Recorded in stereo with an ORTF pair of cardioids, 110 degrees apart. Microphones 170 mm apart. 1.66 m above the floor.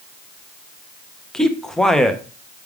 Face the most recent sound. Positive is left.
turn(degrees=5)